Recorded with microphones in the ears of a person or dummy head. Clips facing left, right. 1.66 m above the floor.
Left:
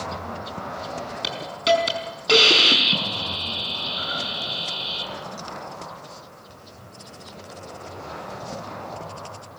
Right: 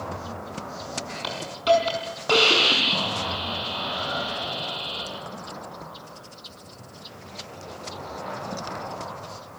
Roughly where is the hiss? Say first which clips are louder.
Right 1 dB; left.